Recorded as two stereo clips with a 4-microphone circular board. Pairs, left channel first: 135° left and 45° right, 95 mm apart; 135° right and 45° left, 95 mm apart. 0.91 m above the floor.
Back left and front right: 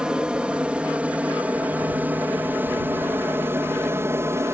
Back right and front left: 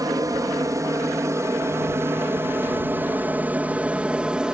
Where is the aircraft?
30° left; by 4.5 s 25° right.